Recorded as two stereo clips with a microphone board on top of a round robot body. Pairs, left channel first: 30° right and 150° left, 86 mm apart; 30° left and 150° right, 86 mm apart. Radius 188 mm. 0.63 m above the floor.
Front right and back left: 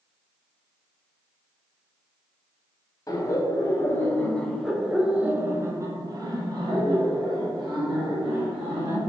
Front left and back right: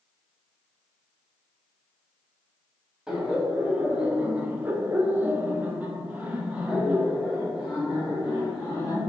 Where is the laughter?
75° right, 1.5 m; by 9.0 s 130° left, 2.5 m.